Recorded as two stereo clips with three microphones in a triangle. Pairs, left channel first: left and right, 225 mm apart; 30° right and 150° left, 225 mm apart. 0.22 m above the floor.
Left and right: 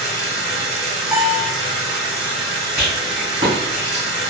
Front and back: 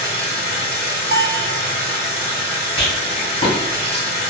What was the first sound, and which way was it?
Running water, 115° left.